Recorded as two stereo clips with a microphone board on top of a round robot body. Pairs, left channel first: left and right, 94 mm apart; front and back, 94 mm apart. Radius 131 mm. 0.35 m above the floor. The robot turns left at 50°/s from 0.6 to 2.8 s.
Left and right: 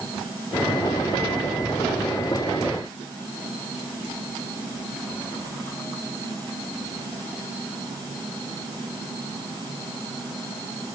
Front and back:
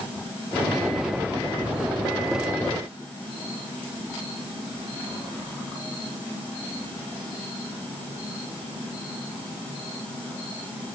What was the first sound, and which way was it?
Only background noise.